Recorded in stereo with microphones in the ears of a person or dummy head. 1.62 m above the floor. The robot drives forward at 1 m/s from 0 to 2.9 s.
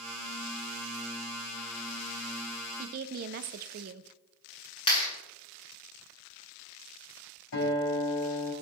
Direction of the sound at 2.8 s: 40° right (ahead or behind).